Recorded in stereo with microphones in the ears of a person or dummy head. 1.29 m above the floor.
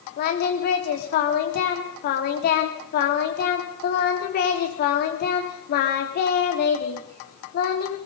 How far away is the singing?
About 3 m.